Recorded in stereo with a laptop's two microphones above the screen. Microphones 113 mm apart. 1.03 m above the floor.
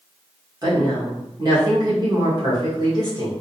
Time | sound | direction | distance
0.6 | a woman speaking | 35° right (ahead or behind) | 1.3 m